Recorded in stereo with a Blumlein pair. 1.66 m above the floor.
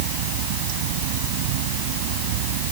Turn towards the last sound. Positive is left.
turn(degrees=-50)